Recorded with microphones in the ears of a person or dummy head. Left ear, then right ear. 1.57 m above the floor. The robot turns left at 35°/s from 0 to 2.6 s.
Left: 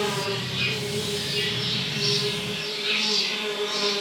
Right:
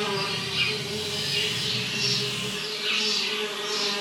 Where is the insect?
25° right, 3.5 m; by 4.0 s 120° right, 3.5 m.